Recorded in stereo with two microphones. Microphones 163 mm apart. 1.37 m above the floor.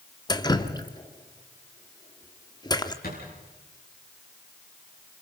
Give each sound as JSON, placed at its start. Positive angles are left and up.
{"t": 0.3, "sound": "dripping", "side_deg": 25, "distance_m": 1.1}
{"t": 3.0, "sound": "a thud", "side_deg": 65, "distance_m": 8.5}